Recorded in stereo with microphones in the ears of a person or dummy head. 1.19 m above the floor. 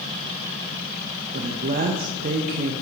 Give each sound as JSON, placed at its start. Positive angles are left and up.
{"t": 1.3, "sound": "a woman speaking", "side_deg": -45, "distance_m": 0.8}